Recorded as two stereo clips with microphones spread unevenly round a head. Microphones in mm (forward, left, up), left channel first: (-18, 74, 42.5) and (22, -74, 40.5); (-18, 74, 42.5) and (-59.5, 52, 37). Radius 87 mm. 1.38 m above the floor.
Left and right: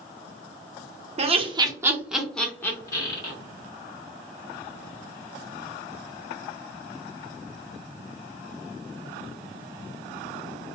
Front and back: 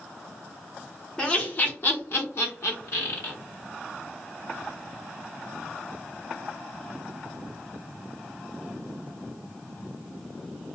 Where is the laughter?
45° right, 0.7 m; by 3.3 s 45° left, 1.1 m.